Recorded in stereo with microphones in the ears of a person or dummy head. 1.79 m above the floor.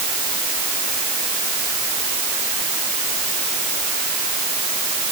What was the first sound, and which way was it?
Only background noise.